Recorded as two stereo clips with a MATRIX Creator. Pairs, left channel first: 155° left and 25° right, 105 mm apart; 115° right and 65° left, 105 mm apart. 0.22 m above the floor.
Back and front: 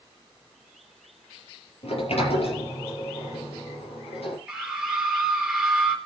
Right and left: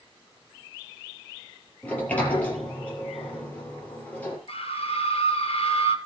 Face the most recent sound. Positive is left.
turn(degrees=-110)